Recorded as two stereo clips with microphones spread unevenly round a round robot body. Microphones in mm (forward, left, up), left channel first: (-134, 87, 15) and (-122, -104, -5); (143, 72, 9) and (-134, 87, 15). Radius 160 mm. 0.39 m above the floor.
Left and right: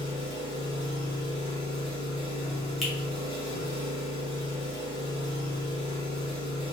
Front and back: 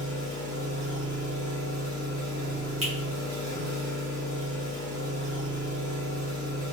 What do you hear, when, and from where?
0.0 s an engine running: 80° right, 1.1 m
2.8 s a finger snap: 160° right, 1.1 m